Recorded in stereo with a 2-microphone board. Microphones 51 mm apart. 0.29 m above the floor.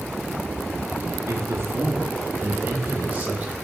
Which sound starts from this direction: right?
A man speaking, at 1.3 s.